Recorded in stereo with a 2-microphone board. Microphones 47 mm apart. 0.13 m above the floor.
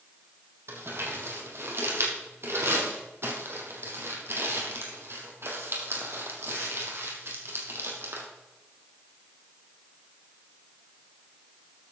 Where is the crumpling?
60° right (ahead or behind), 2.5 m.